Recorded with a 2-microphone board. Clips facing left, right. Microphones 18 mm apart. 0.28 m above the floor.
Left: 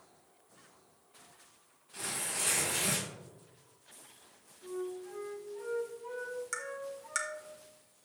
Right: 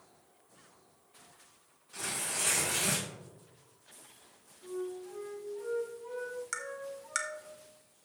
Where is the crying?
I don't hear crying.